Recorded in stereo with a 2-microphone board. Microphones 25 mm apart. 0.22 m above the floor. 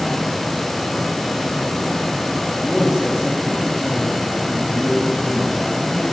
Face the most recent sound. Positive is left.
turn(degrees=5)  # may be behind; listen again after turning